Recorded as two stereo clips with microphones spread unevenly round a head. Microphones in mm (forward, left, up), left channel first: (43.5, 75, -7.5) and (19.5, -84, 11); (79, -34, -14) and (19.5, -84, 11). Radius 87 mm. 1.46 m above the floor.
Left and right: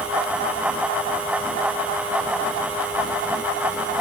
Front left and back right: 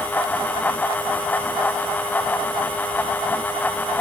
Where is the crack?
I don't hear a crack.